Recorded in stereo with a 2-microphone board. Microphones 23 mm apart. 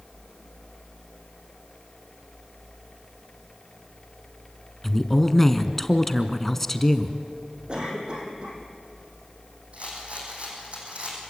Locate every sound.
4.8 s a woman speaking: 10° left (ahead or behind), 1.3 m
7.7 s a cough: 40° right (ahead or behind), 5.5 m
9.7 s a rattle: 60° right (ahead or behind), 7.5 m